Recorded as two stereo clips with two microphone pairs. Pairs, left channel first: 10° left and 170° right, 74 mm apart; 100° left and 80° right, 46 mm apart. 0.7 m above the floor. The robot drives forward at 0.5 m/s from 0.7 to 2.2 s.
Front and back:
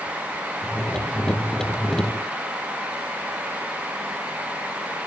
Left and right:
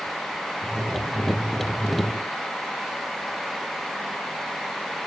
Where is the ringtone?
No ringtone in this recording.